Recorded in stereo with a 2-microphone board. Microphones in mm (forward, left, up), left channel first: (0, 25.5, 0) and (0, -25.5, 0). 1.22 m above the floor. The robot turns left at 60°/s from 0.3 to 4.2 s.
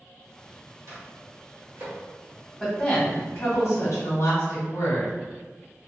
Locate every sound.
0.9 s a microwave: 60° right (ahead or behind), 1.1 m; by 2.0 s 55° right (ahead or behind), 1.1 m
2.6 s a woman speaking: 175° right, 1.2 m; by 5.1 s 85° left, 1.2 m